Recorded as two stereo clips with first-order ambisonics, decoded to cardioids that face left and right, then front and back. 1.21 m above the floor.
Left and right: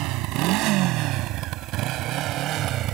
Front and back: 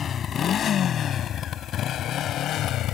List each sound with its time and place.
0.0 s a motorcycle: 60° right; by 2.9 s 45° right